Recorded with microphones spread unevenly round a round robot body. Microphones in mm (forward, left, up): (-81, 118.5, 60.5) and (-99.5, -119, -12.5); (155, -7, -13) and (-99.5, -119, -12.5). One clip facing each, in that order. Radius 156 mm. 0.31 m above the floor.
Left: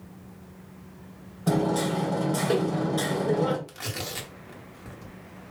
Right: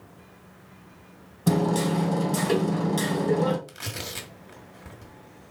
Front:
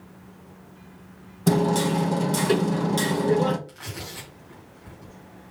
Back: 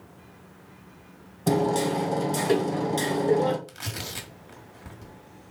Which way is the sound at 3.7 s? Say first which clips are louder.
Left 2 dB, even; 140° right.